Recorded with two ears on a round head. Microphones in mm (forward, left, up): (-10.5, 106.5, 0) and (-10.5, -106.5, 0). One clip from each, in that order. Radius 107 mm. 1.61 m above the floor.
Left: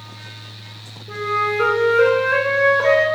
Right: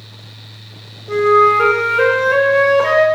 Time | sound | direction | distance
1.1 | a flute | 15° right (ahead or behind) | 0.6 m